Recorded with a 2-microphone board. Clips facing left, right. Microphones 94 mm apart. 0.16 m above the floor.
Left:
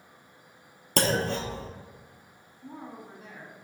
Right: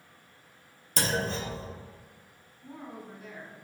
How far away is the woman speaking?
About 1.2 m.